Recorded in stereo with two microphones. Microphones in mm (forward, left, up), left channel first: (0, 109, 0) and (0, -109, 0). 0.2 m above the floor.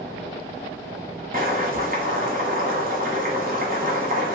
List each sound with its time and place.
1.3 s boiling: 45° right (ahead or behind), 1.2 m